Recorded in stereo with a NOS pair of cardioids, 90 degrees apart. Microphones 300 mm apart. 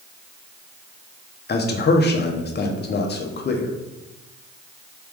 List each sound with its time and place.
1.5 s a man speaking: 35° left, 0.8 m